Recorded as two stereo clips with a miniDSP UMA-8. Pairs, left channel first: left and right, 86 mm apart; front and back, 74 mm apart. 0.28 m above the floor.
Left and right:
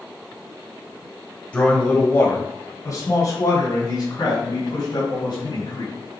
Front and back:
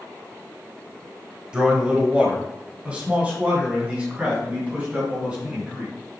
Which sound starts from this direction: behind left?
A man speaking, at 1.5 s.